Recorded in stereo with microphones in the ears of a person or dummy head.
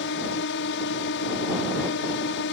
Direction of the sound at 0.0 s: 65° left (ahead or behind).